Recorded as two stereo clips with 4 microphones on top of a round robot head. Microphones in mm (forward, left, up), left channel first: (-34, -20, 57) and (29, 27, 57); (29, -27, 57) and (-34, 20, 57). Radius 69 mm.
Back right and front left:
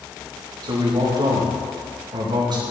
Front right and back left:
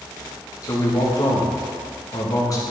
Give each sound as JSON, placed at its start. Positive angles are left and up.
{"t": 0.6, "sound": "a man speaking", "azimuth_deg": 5, "distance_m": 2.0}